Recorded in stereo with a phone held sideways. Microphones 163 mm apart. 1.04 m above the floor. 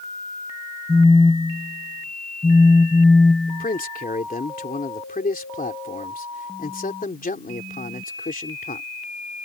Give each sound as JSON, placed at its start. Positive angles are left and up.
{"t": 0.9, "sound": "a phone buzzing", "side_deg": 5}
{"t": 3.5, "sound": "a man speaking", "side_deg": 60}